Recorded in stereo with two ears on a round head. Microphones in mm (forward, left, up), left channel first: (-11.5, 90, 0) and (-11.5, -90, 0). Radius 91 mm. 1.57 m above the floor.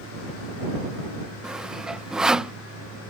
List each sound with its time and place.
1.4 s sawing: 5° right (ahead or behind)